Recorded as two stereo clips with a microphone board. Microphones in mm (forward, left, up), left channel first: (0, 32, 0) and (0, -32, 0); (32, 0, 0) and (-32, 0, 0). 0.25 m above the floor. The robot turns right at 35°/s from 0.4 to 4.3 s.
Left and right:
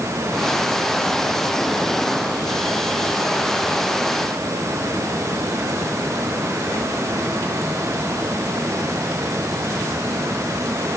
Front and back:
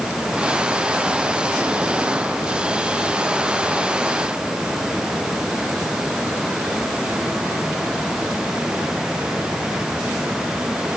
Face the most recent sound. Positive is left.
No sound to turn to.